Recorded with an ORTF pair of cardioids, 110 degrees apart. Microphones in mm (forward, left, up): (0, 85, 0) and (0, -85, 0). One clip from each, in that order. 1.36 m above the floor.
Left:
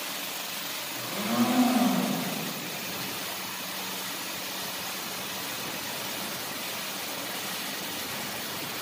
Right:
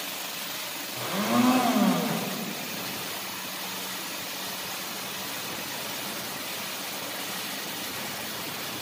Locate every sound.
1.0 s a blender: 35° right, 4 m